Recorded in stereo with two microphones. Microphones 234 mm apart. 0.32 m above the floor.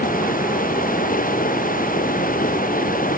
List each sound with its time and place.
0.0 s running water: 35° left (ahead or behind)